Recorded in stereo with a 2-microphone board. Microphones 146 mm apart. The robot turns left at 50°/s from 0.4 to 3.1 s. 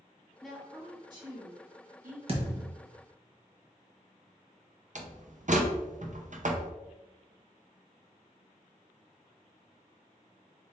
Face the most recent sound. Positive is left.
turn(degrees=-60)  # may be behind; listen again after turning